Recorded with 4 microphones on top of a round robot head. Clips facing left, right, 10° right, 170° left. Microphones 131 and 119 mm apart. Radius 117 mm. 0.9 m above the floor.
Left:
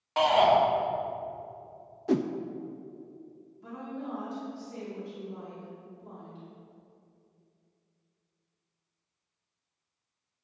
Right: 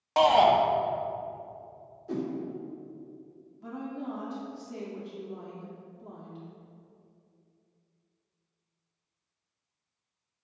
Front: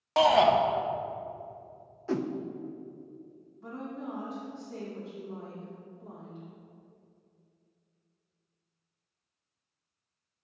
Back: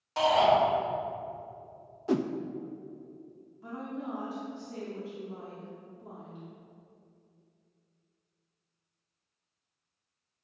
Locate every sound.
0.2 s a shout: 35° right, 1.0 m
2.1 s a whoosh: 95° left, 0.6 m
3.6 s a woman speaking: 110° right, 3 m